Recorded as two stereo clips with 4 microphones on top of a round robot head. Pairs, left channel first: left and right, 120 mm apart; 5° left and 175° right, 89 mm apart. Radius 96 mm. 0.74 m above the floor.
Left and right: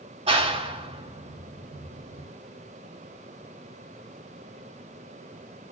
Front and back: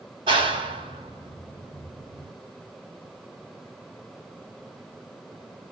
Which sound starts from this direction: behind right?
A clap, at 0.3 s.